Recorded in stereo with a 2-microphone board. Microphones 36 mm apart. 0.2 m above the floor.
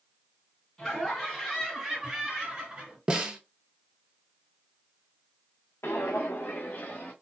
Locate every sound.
0.8 s laughter: 5° left (ahead or behind), 1.9 m; by 3.0 s 30° right (ahead or behind), 1.6 m
3.1 s a snare drum: 20° right (ahead or behind), 0.6 m
5.8 s footsteps: 70° left (ahead or behind), 0.7 m; by 7.1 s 50° left (ahead or behind), 1.3 m